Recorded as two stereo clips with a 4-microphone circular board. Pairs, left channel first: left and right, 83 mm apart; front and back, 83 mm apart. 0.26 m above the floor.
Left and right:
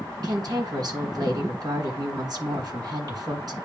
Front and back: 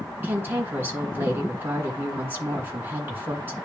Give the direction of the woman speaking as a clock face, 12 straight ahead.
4 o'clock.